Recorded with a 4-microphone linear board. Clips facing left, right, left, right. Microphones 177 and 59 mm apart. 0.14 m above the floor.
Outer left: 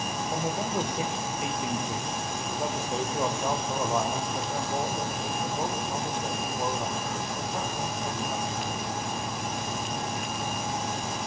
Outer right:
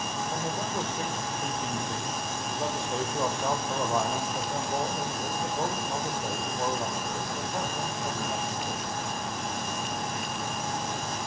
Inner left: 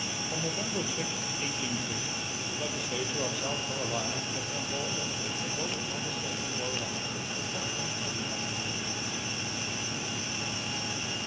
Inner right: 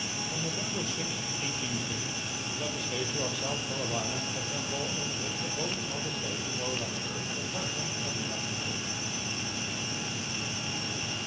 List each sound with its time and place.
0.3 s a man speaking: 20° left (ahead or behind), 3.5 m; by 9.0 s 15° right (ahead or behind), 7 m